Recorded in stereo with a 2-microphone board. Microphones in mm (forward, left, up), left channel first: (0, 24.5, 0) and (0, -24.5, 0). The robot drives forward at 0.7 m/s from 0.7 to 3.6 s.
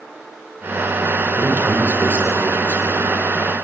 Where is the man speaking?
40° right (ahead or behind), 5.5 m; by 3.2 s 50° right (ahead or behind), 5 m.